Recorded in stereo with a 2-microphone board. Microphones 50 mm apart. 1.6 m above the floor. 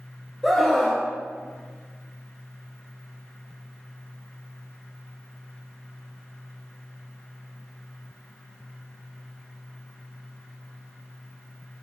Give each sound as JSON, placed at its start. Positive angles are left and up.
{"t": 0.4, "sound": "a scream", "side_deg": 5, "distance_m": 1.0}